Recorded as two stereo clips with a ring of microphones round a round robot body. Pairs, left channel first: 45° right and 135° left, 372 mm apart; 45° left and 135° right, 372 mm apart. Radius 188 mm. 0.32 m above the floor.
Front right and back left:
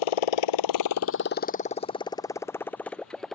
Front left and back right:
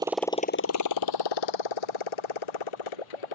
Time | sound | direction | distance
0.0 | a motorcycle | 55° right | ?